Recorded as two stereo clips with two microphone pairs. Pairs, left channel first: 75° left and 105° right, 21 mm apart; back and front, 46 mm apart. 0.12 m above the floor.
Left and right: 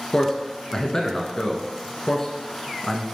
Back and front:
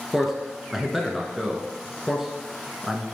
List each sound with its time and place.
0.1 s a man speaking: 75° left, 1.1 m